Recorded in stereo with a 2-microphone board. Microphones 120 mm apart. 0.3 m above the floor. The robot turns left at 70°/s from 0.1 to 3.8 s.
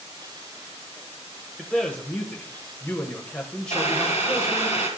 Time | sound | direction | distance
1.6 | a man speaking | 5° left (ahead or behind) | 1.0 m
3.7 | boiling | 70° left (ahead or behind) | 4 m